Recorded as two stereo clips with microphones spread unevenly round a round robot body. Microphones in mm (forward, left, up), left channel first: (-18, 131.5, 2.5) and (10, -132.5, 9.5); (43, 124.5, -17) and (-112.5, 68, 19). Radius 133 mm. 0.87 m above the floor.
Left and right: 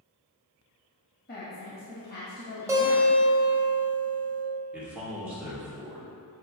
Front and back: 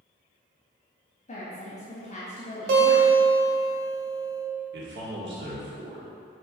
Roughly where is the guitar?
Behind.